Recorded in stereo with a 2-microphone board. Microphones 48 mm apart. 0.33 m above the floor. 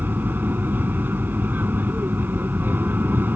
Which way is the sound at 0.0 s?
45° right (ahead or behind).